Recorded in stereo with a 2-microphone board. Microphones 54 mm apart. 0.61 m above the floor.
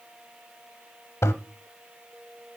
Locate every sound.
1.2 s a toilet flushing: 60° left (ahead or behind), 0.6 m